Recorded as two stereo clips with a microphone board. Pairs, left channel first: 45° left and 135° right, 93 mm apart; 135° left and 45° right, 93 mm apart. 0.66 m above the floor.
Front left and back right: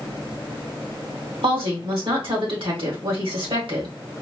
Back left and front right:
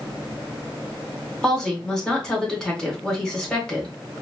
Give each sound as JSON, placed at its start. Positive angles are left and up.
{"t": 1.4, "sound": "a woman speaking", "azimuth_deg": -145, "distance_m": 1.8}